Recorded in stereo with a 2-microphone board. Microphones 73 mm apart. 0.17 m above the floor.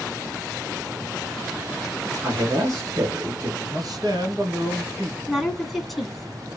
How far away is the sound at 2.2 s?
About 2 m.